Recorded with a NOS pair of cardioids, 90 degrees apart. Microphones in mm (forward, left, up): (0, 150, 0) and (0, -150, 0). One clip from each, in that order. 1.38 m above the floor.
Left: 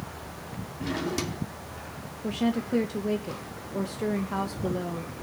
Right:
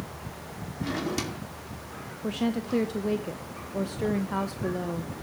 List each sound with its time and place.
0.8 s a drawer: 5° right, 2.5 m
2.2 s a woman speaking: 5° right, 1.0 m